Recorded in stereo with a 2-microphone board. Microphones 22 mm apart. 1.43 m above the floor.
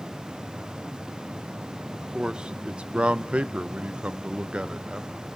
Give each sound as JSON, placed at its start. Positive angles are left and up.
{"t": 1.9, "sound": "a man speaking", "side_deg": -40, "distance_m": 1.1}